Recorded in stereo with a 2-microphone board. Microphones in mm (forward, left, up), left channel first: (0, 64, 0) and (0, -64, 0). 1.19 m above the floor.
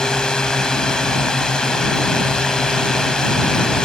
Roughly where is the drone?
Centre.